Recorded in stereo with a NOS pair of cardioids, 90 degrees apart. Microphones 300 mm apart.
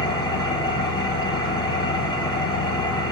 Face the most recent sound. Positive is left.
turn(degrees=15)